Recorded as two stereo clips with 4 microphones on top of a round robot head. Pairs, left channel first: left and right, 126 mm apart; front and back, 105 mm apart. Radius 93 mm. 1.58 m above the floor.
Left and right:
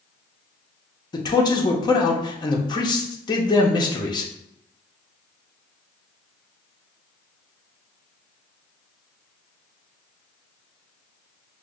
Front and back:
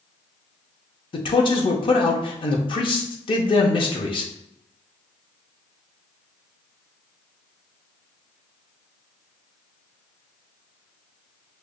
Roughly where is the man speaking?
Ahead left.